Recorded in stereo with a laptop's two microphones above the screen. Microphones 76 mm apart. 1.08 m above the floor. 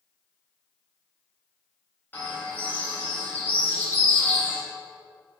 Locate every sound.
2.1 s a bird: 20° left (ahead or behind), 2.0 m